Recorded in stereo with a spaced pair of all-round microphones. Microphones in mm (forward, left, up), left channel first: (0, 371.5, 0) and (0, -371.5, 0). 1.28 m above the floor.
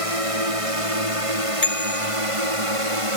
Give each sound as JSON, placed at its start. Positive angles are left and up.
{"t": 0.0, "sound": "a drone", "side_deg": -45}
{"t": 1.6, "sound": "a bicycle bell", "side_deg": 50}